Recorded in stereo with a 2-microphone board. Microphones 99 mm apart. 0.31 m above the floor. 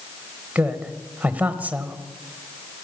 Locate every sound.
0.6 s a woman speaking: 15° right (ahead or behind), 1.2 m